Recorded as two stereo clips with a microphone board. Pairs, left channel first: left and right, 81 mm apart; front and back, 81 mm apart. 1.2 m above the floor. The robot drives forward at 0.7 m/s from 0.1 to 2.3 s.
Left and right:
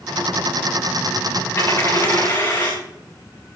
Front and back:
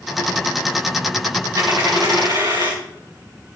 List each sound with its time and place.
1.6 s a dropped coin: 140° left, 5 m; by 2.8 s 145° left, 5.5 m